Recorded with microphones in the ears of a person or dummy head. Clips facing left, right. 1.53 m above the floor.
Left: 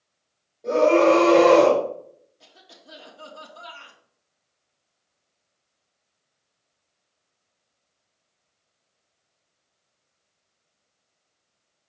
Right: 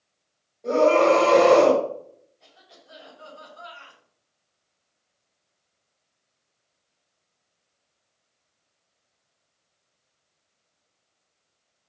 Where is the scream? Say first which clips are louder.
Left 1 dB; centre (ahead or behind), 2.5 m.